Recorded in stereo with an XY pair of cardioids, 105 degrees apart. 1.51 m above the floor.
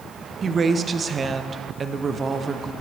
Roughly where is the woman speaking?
Ahead right.